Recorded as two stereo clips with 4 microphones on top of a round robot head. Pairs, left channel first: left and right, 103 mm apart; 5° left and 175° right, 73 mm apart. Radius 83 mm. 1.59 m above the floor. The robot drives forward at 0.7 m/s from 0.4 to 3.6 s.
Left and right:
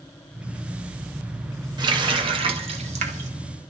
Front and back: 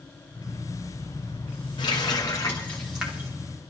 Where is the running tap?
45° right, 1.3 m; by 3.3 s 105° right, 1.1 m.